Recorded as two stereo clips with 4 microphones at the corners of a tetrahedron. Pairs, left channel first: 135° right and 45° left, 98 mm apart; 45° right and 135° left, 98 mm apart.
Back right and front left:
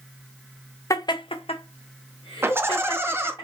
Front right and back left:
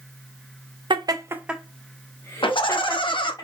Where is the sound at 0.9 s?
170° left, 0.8 m; by 3.4 s 90° right, 2 m.